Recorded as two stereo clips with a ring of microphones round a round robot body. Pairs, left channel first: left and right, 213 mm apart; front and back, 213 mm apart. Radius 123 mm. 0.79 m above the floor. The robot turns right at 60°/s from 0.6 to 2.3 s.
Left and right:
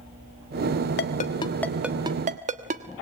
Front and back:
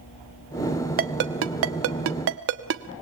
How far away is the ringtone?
About 1.2 m.